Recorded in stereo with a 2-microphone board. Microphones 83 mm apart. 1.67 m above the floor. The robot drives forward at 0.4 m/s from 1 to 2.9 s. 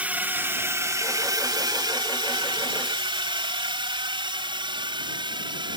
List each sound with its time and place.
0.0 s a drone: 20° right (ahead or behind); by 5.8 s 65° right (ahead or behind)